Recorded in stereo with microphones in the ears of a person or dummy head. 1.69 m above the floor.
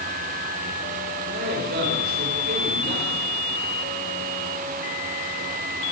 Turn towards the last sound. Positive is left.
turn(degrees=-60)  # may be behind; listen again after turning